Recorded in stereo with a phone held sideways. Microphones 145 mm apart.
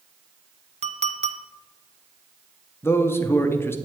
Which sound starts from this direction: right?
A clink, at 0.8 s.